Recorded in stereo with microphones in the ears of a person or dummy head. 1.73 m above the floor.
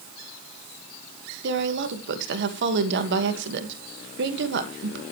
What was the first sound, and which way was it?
A woman speaking, 60° right (ahead or behind).